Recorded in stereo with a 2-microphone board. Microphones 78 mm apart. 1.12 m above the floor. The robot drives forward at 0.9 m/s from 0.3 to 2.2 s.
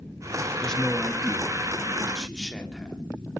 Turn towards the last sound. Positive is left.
turn(degrees=5)  # may be behind; listen again after turning